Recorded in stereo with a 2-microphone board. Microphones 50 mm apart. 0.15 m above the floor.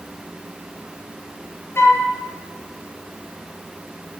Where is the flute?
55° left (ahead or behind), 1.8 m.